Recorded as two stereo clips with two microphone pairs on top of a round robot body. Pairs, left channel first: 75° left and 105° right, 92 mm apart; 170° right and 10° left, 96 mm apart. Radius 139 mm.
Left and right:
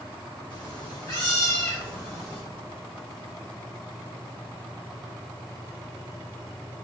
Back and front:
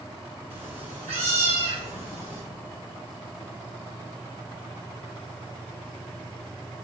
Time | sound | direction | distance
0.5 | a cat meowing | 30° left | 1.9 m